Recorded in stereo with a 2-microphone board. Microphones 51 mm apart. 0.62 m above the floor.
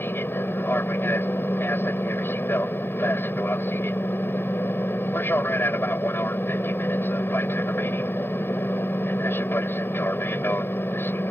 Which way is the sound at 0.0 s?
45° left (ahead or behind).